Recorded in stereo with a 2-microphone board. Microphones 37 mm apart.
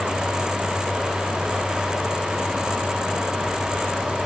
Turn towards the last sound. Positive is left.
No sound to turn to.